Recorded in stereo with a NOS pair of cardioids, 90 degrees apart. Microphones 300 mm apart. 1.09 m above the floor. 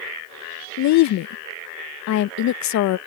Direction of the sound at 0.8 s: 65° left.